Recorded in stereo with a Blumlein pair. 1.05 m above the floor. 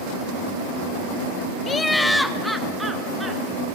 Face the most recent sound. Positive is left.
turn(degrees=-10)